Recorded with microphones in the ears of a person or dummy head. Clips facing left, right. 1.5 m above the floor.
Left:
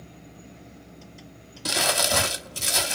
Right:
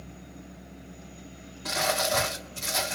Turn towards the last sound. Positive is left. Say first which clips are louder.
# left 1 dB
turn(degrees=40)  # may be behind; listen again after turning